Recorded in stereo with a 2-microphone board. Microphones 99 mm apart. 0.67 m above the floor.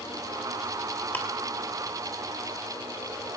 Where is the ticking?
20° left (ahead or behind), 3 m.